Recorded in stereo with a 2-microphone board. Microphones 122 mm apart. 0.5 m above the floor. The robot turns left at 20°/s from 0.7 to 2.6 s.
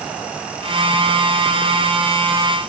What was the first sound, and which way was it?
Only background noise.